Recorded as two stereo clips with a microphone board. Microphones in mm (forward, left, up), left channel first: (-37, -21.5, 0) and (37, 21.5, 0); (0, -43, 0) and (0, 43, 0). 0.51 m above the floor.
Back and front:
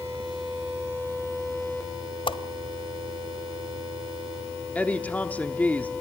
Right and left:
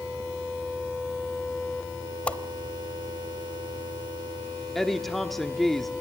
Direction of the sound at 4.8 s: 170° right.